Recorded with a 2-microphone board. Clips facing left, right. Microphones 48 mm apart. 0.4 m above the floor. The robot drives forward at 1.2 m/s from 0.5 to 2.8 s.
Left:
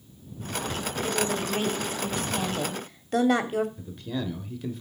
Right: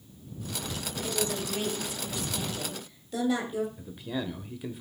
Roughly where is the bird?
I don't hear a bird.